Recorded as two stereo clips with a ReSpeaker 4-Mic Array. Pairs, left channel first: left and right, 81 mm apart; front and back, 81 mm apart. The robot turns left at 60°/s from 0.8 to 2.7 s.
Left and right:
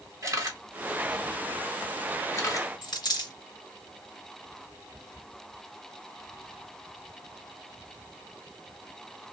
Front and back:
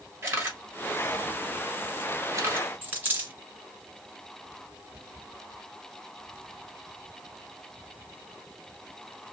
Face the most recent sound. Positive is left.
turn(degrees=115)